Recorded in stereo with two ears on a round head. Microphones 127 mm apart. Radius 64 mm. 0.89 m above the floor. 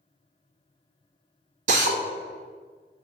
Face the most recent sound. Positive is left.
turn(degrees=-55)  # may be behind; listen again after turning